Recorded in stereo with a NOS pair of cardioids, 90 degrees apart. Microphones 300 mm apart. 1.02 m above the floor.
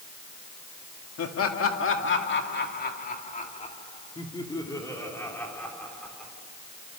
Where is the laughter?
55° left, 2 m; by 6.3 s straight ahead, 3.5 m.